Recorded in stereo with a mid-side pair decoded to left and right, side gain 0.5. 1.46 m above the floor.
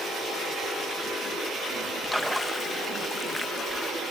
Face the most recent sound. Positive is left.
turn(degrees=5)